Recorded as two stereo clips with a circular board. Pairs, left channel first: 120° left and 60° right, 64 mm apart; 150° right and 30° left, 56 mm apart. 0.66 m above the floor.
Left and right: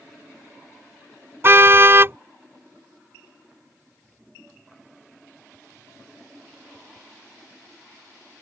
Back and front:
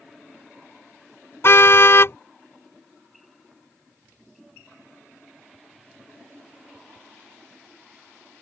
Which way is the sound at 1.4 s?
110° right.